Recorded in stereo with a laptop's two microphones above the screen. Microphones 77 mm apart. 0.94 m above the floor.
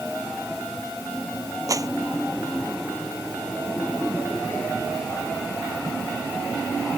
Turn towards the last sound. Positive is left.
turn(degrees=-50)  # may be behind; listen again after turning